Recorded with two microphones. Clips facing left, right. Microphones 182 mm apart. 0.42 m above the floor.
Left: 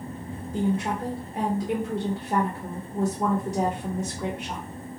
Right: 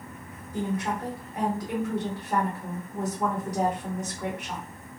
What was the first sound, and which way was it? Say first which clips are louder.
A woman speaking: left 3 dB; 25° left (ahead or behind).